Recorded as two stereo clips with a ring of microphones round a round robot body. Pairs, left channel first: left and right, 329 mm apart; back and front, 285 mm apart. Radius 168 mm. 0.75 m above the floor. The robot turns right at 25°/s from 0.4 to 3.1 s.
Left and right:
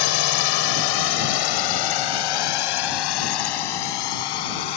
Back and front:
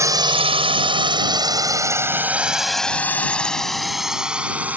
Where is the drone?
80° left; by 4.8 s 85° left.